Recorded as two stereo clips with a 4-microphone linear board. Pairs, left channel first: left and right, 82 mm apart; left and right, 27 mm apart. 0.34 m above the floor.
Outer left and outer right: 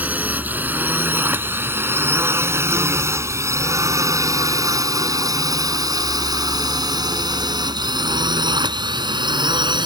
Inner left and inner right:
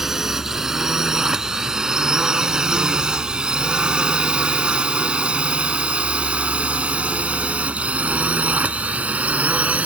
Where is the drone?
20° right (ahead or behind); by 9.9 s 70° right (ahead or behind).